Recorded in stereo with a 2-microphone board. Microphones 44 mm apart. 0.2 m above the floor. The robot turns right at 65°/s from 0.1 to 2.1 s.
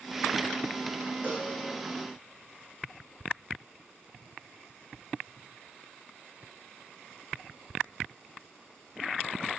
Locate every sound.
1.2 s a cowbell: 40° right (ahead or behind), 4.5 m; by 1.5 s 20° right (ahead or behind), 4.5 m